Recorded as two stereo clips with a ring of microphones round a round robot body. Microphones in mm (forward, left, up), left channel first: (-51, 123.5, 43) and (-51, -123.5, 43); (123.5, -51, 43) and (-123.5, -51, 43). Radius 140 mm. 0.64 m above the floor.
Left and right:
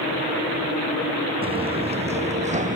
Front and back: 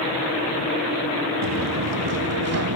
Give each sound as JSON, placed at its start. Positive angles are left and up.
{"t": 1.4, "sound": "footsteps", "azimuth_deg": -160}